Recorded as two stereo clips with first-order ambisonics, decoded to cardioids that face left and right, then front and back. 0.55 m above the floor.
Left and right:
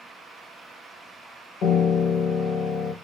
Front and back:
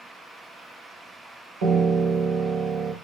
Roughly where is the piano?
Behind left.